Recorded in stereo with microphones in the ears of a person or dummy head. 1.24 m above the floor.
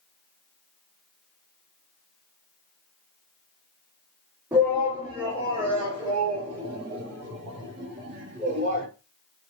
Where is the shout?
10° right (ahead or behind), 3 m; by 8.9 s 40° right (ahead or behind), 5 m.